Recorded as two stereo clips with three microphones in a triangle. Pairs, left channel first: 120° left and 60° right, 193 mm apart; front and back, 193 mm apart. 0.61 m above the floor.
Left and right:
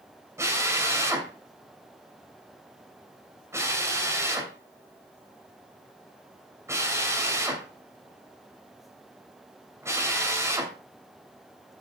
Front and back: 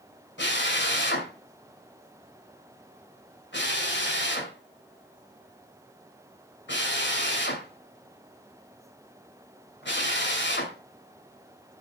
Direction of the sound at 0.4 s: 15° left.